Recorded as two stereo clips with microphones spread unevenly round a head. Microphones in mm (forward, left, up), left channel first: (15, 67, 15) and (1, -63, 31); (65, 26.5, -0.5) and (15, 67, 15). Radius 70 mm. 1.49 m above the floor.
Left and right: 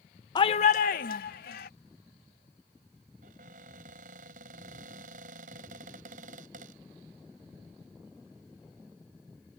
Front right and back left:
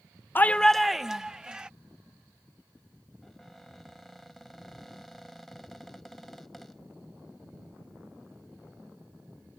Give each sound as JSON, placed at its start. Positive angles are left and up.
{"t": 0.3, "sound": "a shout", "azimuth_deg": 25}
{"t": 3.2, "sound": "a cupboard door", "azimuth_deg": -130}